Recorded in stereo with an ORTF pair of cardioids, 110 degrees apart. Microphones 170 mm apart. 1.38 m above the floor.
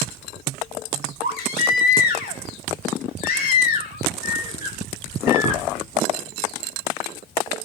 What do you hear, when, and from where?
1.2 s a baby crying: 60° left, 5.5 m